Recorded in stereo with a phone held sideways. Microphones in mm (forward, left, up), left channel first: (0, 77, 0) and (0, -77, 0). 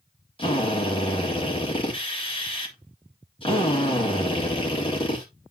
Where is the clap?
No clap in this recording.